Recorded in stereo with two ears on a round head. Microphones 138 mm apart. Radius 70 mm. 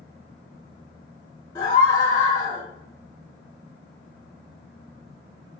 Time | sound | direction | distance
1.6 | a scream | 15° left (ahead or behind) | 1.1 m